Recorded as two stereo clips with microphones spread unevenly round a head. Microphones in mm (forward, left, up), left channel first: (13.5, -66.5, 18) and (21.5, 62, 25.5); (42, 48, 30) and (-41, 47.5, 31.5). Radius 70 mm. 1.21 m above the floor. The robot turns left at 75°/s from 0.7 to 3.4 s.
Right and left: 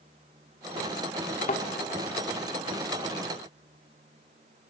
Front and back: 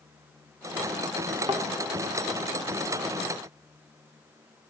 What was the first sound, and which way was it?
A thud, 125° right.